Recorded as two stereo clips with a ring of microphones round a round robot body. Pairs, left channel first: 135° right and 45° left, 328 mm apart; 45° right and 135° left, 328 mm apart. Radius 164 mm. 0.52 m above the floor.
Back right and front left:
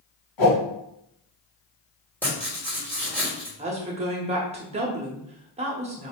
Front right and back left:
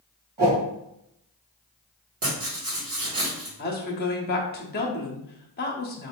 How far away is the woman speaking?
About 0.8 m.